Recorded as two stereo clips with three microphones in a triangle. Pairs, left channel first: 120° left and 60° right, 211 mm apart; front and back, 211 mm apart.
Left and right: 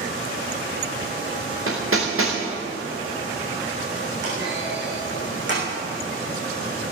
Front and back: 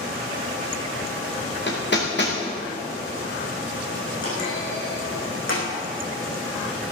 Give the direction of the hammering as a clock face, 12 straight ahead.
1 o'clock.